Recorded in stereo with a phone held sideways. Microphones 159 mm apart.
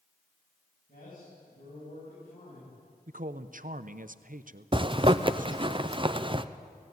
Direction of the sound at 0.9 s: 65° left (ahead or behind).